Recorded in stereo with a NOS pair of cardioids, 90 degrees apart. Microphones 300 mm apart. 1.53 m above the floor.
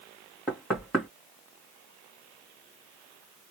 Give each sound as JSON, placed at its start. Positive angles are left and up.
{"t": 0.5, "sound": "knocking", "azimuth_deg": 0, "distance_m": 2.0}